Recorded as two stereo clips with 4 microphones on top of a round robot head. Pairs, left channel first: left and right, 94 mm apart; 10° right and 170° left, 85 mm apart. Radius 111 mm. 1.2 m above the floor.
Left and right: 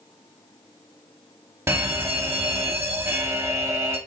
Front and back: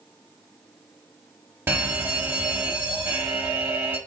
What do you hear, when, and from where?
1.7 s a fire alarm: 140° right, 1.2 m